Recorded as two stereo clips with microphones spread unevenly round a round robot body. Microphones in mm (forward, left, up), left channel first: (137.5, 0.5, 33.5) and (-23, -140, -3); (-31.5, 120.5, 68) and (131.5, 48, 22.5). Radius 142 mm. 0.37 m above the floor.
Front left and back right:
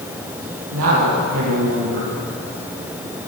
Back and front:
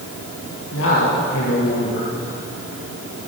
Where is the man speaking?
170° right, 9 m.